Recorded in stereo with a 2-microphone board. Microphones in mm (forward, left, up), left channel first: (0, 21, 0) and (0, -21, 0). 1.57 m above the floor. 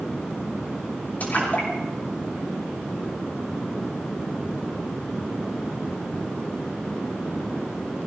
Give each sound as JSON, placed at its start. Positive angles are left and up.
{"t": 1.2, "sound": "a splash", "side_deg": 35, "distance_m": 6.0}